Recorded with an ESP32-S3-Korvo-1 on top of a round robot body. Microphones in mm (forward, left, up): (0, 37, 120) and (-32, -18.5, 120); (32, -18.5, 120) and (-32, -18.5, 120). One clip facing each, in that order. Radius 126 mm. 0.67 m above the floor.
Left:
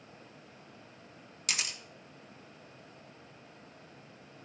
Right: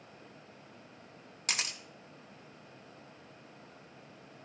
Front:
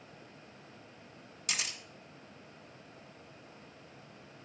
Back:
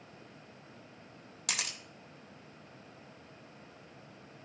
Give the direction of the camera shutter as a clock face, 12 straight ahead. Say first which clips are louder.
Even, even; 6 o'clock.